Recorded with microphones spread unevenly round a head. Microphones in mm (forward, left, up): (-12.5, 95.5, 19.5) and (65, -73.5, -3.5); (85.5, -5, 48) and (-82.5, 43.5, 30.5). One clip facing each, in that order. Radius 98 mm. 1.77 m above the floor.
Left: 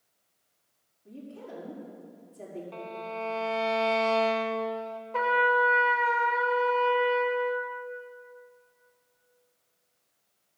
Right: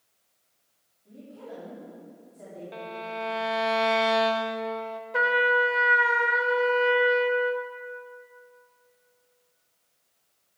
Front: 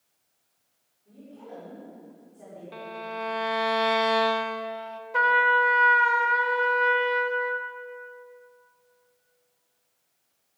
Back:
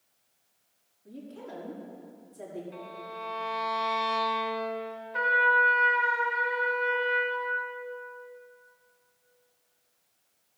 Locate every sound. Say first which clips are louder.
1.1 s a woman speaking: even, back 2 dB; 170° left, 4.5 m
2.7 s a violin: right 4 dB, front 5 dB; 10° left, 0.6 m
5.1 s a trumpet: right 1 dB, front 4 dB; 15° left, 0.6 m